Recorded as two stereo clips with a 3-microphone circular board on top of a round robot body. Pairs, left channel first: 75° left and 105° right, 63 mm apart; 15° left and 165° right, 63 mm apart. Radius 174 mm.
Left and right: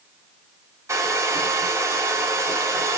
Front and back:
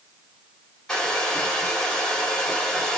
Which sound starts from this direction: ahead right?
A hair dryer, at 0.9 s.